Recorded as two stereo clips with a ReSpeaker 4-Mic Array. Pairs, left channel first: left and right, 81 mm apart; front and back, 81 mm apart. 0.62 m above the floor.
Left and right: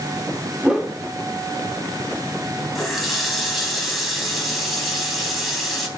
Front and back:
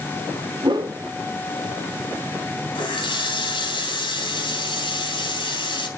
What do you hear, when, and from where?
0.6 s a whoosh: 165° right, 1.6 m
2.8 s a running tap: straight ahead, 3.5 m